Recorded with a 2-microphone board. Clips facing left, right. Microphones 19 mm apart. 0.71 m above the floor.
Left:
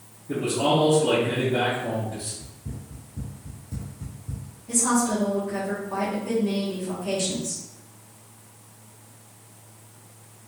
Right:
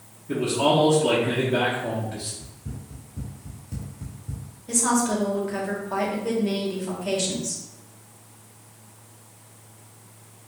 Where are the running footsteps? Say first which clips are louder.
Even; 60° right (ahead or behind), 1.3 m; by 4.6 s 5° right (ahead or behind), 1.0 m.